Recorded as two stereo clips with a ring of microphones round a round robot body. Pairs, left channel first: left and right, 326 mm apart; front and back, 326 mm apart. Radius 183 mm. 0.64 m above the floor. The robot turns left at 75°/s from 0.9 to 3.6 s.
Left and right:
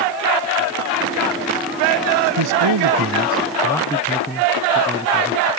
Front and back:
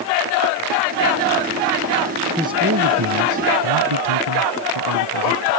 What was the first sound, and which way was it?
A man speaking, 95° right.